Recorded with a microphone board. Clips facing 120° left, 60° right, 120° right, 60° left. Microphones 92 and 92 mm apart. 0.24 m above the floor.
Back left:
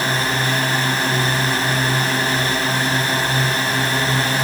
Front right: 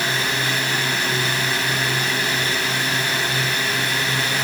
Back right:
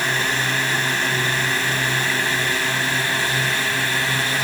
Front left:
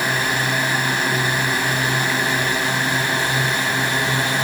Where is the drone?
130° left; by 4.4 s 115° left.